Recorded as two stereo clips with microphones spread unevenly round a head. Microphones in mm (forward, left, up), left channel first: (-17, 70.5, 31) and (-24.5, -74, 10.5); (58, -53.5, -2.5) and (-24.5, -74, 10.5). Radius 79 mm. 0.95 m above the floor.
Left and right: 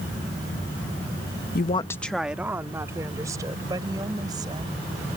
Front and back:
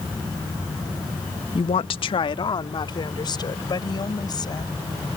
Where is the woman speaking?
55° left; by 4.7 s 25° right.